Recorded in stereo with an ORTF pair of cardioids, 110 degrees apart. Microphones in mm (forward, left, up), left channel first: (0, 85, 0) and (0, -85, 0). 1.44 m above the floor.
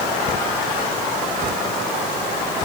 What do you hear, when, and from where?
Only background noise.